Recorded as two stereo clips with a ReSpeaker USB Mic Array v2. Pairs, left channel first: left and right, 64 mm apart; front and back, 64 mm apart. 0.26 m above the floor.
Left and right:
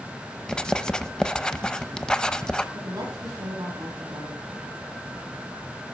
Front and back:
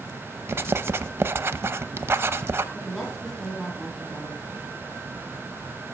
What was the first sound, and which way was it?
Writing, 160° left.